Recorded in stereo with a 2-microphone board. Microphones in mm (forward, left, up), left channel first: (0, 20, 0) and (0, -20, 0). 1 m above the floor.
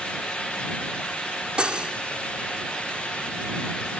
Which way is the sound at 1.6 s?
25° right (ahead or behind).